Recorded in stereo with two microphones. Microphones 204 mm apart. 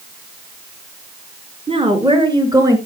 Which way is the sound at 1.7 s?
30° right (ahead or behind).